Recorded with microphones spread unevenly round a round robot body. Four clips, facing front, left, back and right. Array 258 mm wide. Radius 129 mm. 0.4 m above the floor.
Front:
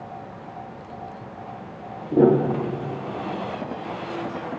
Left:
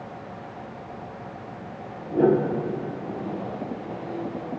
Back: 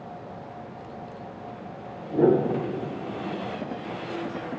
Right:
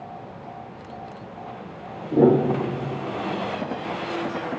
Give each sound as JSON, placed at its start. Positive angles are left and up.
{"t": 2.1, "sound": "a piano", "azimuth_deg": -20, "distance_m": 4.0}